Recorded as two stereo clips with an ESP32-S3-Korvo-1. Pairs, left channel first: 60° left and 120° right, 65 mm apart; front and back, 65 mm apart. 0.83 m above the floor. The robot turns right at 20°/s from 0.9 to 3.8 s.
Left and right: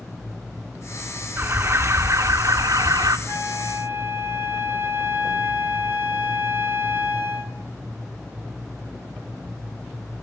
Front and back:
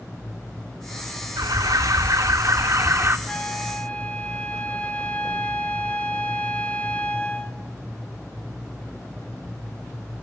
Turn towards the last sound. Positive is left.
turn(degrees=-70)